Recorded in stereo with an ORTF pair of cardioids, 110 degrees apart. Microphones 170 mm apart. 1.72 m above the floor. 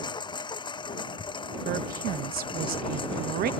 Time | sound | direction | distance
0.0 | a lawn mower | 25° left | ?
1.6 | a woman speaking | 65° right | ?